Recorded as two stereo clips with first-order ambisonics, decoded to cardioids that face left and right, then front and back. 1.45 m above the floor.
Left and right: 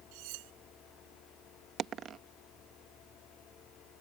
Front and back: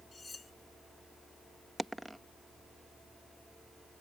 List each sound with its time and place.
0.1 s cutlery clinking: 80° right
1.8 s a dropped coin: 95° right